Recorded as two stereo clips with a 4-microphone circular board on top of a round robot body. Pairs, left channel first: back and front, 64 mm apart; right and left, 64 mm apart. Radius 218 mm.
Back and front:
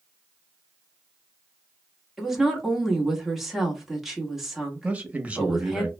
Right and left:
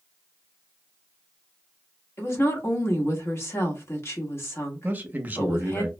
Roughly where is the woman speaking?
Right.